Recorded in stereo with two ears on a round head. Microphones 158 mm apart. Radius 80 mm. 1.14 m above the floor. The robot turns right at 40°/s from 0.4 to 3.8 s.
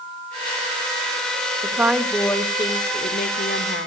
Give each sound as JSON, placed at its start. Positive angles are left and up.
{"t": 1.6, "sound": "a woman speaking", "azimuth_deg": -15, "distance_m": 1.8}